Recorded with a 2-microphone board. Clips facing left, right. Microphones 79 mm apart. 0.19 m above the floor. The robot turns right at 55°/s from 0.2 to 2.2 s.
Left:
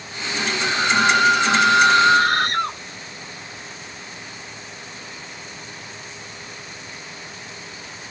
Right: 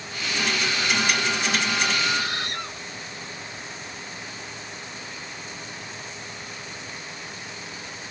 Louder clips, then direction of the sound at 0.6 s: Left 10 dB; 40° left.